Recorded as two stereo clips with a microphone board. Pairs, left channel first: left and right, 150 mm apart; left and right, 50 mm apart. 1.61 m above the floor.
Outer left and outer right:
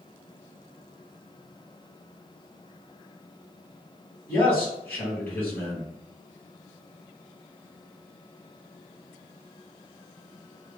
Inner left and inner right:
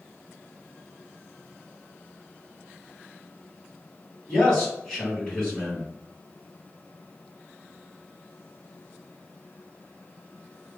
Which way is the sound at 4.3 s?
10° left (ahead or behind).